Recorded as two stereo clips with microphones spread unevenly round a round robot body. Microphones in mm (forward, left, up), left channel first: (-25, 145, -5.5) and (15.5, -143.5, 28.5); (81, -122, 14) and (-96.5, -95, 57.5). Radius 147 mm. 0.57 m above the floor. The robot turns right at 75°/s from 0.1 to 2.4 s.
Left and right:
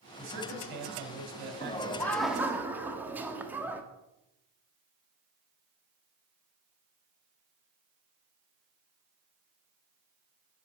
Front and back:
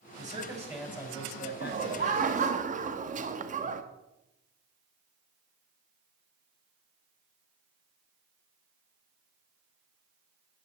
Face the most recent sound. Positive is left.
turn(degrees=-175)